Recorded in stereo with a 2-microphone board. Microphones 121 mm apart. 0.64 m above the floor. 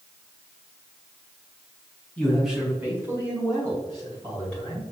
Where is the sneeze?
No sneeze in this recording.